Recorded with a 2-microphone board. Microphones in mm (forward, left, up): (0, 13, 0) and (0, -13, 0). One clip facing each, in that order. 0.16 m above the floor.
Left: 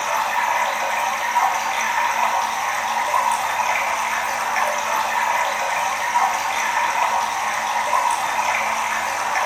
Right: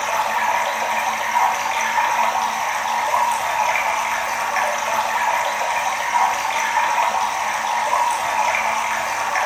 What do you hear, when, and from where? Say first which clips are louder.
0.0 s running water: right 1 dB; 5° right (ahead or behind), 1.1 m